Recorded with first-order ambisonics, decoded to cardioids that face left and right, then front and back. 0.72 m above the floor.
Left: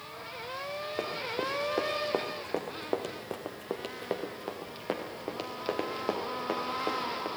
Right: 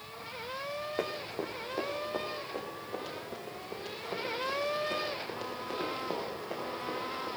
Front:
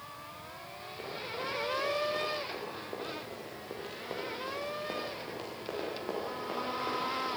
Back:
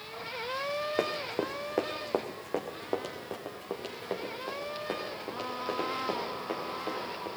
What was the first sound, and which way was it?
Running footsteps, 175° right.